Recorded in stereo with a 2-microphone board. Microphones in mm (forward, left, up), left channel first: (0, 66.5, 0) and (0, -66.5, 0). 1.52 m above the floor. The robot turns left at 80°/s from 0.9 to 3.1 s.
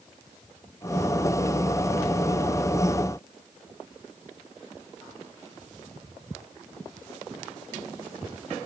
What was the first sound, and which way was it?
Only background noise.